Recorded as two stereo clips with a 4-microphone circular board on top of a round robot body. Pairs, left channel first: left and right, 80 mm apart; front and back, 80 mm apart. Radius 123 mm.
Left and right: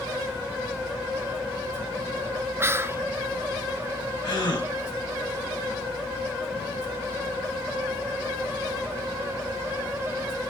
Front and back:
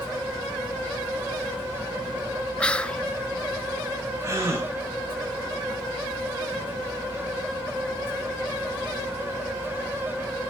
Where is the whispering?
65° right, 0.8 m.